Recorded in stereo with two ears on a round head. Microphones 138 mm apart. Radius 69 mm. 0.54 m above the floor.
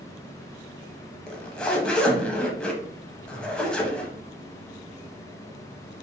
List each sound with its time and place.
1.3 s a zipper: 5° left (ahead or behind), 0.5 m